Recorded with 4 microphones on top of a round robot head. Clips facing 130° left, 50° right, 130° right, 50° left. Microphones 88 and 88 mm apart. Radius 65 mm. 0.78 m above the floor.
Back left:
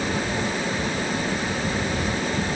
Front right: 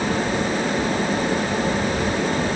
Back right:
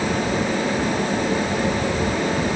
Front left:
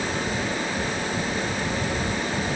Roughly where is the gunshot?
I don't hear a gunshot.